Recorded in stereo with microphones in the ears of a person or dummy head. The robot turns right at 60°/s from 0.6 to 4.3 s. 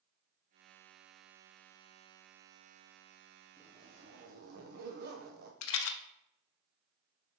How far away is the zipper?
About 0.7 m.